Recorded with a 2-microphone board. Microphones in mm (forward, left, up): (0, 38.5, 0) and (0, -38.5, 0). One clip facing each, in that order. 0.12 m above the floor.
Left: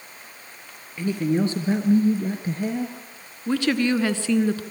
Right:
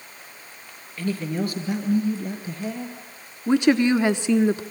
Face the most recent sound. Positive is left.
turn(degrees=-20)  # may be behind; listen again after turning